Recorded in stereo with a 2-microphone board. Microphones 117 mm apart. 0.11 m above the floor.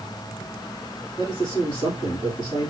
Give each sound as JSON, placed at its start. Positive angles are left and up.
{"t": 1.2, "sound": "a man speaking", "side_deg": 40, "distance_m": 3.0}